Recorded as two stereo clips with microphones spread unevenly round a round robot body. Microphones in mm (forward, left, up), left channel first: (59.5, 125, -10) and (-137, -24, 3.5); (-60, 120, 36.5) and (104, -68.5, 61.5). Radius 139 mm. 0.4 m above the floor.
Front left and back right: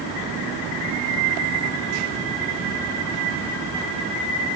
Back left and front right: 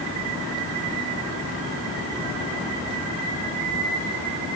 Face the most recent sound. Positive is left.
No sound to turn to.